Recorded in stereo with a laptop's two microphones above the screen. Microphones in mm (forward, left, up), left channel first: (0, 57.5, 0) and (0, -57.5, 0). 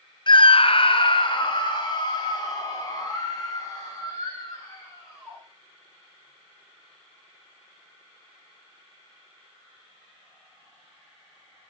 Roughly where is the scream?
Left.